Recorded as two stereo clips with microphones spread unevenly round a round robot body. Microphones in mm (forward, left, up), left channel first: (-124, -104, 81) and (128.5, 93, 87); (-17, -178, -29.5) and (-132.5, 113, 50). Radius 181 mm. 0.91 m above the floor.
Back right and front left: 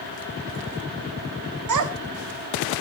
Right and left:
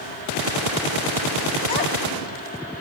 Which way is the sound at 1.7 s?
5° left.